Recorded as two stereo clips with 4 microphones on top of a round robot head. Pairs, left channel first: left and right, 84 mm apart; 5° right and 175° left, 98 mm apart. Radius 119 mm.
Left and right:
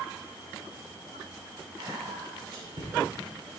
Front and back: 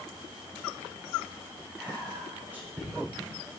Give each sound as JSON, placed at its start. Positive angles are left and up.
{"t": 1.8, "sound": "whispering", "azimuth_deg": -110, "distance_m": 5.0}